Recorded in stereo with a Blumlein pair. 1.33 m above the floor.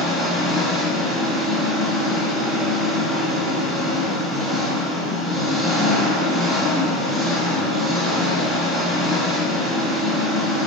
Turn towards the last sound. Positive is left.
turn(degrees=0)